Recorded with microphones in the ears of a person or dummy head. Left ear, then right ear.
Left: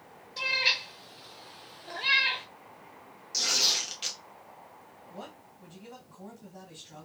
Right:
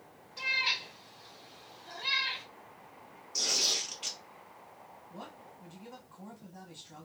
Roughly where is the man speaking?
Centre.